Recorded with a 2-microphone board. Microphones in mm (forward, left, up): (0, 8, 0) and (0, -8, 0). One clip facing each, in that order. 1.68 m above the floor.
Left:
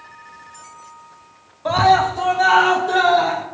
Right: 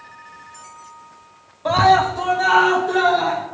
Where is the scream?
5° left (ahead or behind), 0.9 m; by 3.4 s 30° left (ahead or behind), 1.7 m.